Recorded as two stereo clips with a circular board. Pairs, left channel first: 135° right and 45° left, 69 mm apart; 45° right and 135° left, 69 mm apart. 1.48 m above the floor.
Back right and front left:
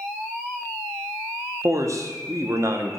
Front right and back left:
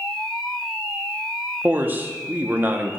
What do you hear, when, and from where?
1.6 s a man speaking: 75° left, 0.7 m